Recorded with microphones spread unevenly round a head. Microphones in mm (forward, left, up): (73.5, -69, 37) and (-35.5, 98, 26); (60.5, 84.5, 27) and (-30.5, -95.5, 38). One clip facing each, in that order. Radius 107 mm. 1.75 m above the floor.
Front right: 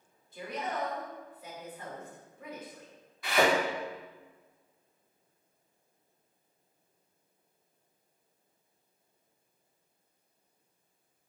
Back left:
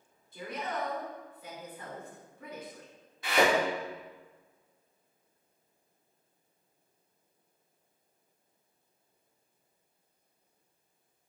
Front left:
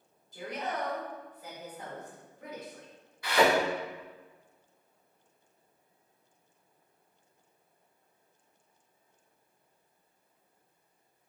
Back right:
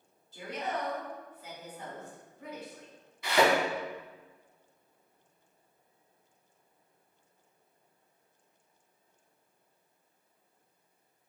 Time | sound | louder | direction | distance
0.3 | a woman speaking | front right 1 dB, even | 140° left | 1.7 m
3.2 | a thud | even, front left 1 dB | 175° right | 1.5 m